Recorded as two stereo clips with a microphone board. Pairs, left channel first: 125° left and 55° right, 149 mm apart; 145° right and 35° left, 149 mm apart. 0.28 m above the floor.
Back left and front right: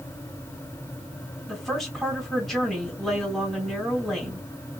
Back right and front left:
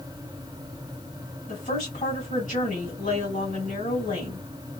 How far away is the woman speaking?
About 2.5 m.